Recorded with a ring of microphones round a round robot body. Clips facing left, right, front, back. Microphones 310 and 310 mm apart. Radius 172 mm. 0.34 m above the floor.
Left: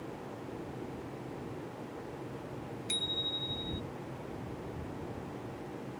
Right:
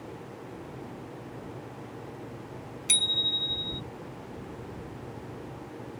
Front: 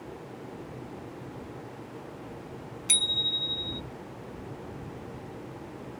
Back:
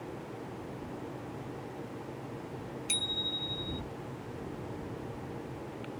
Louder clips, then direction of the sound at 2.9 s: Right 1 dB, even; 55° right.